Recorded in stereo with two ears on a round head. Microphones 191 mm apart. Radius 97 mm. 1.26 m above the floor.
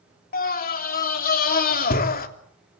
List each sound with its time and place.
0.3 s a scream: 45° left (ahead or behind), 3 m